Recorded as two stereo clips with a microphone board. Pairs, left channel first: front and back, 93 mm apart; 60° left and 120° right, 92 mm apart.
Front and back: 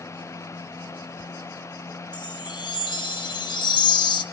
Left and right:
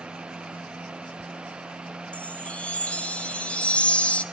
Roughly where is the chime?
Ahead.